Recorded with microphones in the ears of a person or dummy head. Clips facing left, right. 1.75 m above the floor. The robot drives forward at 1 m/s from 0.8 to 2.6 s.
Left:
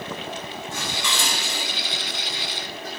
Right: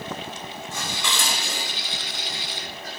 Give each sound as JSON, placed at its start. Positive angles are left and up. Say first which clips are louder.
{"t": 0.7, "sound": "dishes clattering", "louder": "even", "side_deg": -65, "distance_m": 5.5}